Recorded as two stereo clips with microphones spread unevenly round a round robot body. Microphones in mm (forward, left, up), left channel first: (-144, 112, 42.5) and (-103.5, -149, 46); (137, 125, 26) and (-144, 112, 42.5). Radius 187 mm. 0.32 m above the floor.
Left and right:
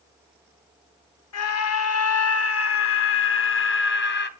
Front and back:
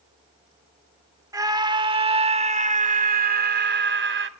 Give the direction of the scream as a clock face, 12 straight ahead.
9 o'clock.